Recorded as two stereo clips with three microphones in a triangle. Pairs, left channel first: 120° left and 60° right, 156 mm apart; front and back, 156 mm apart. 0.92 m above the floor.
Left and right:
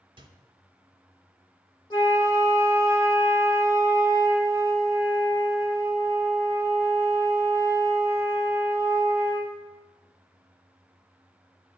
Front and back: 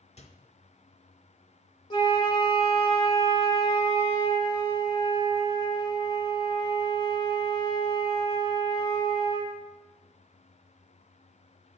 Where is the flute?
60° left, 1.9 m.